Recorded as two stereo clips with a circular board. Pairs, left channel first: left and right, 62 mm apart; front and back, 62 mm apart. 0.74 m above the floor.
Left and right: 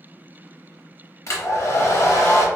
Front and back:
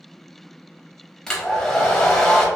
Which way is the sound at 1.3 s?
75° left.